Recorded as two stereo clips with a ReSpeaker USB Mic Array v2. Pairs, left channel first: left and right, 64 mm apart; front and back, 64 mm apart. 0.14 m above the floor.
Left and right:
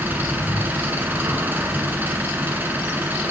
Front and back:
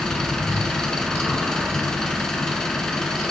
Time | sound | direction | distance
0.0 | an engine running | 75° right | 1.3 m